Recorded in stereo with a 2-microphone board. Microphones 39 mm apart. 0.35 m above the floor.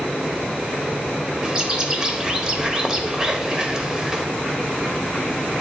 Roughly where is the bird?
Centre.